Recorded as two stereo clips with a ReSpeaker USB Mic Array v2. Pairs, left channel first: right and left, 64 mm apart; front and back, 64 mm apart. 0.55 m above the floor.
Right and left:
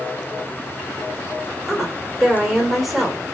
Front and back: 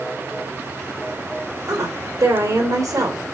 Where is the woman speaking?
Straight behind, 2.5 m.